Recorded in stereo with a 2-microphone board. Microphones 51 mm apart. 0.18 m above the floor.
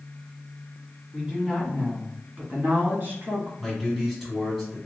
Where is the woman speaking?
5° right (ahead or behind), 1.4 m; by 3.5 s 45° right (ahead or behind), 1.6 m.